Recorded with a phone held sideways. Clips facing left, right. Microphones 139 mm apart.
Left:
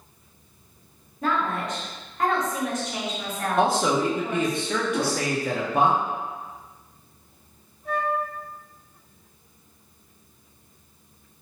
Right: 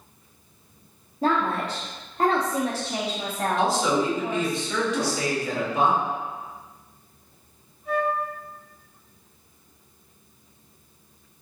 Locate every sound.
1.2 s a woman speaking: 30° right (ahead or behind), 0.9 m
3.6 s a man speaking: 55° left (ahead or behind), 0.8 m
4.9 s a whoosh: 55° left (ahead or behind), 1.3 m
7.8 s a flute: 55° left (ahead or behind), 1.8 m